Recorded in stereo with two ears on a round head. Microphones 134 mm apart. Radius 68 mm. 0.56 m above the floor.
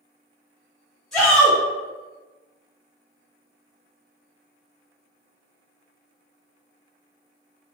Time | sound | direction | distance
1.1 | a shout | 5° left (ahead or behind) | 1.2 m